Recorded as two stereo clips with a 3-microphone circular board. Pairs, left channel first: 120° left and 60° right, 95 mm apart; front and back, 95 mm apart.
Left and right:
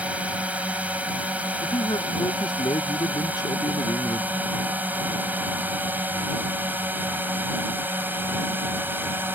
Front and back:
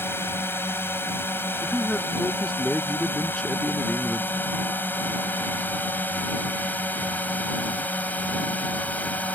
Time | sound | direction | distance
0.0 | a drone | 5° right | ?
1.6 | a man speaking | 85° left | ?